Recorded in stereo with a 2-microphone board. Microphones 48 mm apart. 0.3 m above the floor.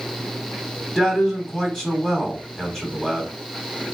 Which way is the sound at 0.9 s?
10° left (ahead or behind).